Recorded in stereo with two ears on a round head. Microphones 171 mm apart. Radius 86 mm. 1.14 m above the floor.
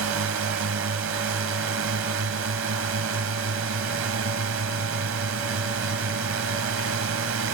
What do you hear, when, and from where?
0.0 s a drone: 80° right